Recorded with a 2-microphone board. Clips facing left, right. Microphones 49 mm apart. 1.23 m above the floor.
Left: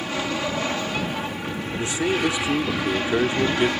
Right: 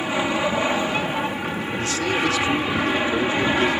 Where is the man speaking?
20° left (ahead or behind).